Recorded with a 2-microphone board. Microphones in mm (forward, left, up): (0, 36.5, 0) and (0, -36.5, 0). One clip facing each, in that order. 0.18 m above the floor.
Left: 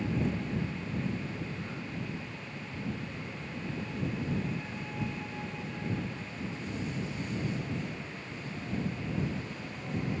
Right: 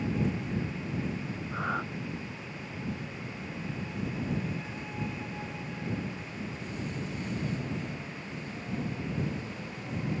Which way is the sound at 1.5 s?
75° right (ahead or behind).